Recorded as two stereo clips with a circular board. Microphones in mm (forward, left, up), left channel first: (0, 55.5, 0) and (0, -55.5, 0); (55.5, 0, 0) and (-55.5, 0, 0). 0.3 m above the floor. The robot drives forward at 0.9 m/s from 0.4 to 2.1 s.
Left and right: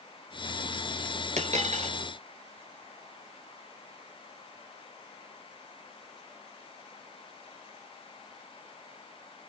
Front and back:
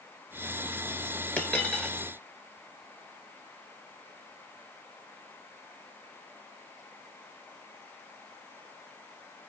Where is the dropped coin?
75° right, 2.5 m; by 1.9 s 90° right, 2 m.